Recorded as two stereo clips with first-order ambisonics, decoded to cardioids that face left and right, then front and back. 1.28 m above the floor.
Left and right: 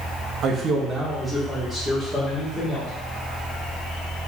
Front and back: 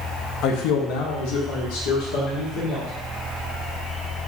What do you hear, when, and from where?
0.4 s a man speaking: 40° right, 0.6 m; by 2.9 s 20° left, 1.9 m